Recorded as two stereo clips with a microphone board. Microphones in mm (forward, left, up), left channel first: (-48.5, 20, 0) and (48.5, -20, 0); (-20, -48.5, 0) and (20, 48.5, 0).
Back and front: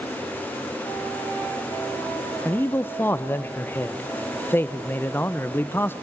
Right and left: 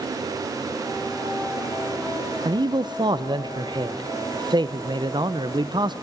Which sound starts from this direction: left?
A man speaking, at 2.5 s.